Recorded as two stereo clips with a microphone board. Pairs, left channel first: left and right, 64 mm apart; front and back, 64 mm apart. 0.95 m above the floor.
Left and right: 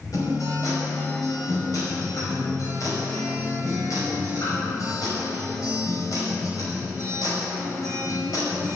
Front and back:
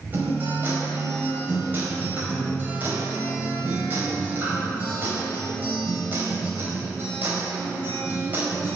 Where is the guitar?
120° left, 5.5 m.